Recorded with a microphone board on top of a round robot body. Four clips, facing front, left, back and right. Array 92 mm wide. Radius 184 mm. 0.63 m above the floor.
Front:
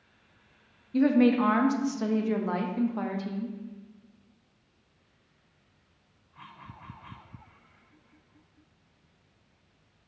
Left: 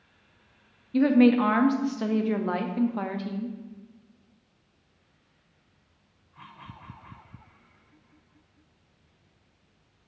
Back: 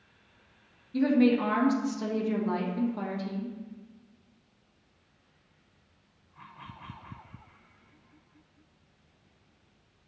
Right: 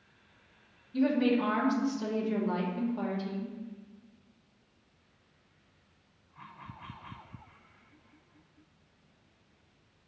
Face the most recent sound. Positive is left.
turn(degrees=70)